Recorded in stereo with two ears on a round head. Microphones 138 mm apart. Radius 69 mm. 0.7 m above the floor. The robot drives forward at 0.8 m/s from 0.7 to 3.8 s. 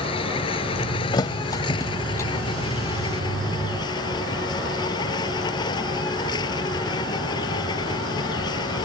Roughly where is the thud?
Left.